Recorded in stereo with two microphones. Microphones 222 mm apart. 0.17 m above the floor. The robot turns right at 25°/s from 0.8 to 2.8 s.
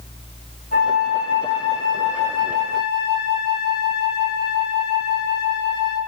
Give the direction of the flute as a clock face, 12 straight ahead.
7 o'clock.